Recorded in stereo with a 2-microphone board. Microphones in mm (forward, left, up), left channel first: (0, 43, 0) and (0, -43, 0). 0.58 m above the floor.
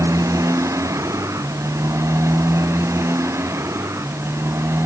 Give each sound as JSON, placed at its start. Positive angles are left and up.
{"t": 0.0, "sound": "a motorcycle", "side_deg": -35}